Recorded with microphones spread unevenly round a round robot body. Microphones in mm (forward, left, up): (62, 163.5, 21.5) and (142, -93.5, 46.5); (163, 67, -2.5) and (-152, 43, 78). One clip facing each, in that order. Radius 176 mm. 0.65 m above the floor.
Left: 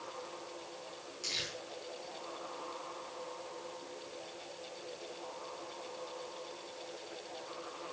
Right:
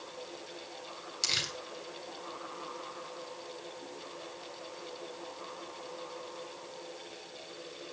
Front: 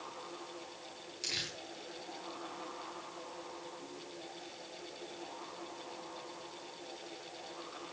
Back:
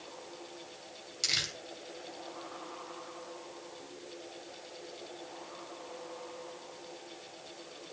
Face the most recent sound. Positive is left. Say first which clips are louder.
# right 2 dB, even
turn(degrees=-110)